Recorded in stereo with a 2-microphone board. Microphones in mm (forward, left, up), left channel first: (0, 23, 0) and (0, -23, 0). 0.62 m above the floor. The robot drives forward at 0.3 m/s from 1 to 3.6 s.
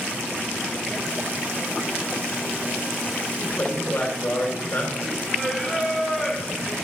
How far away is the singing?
About 2.5 m.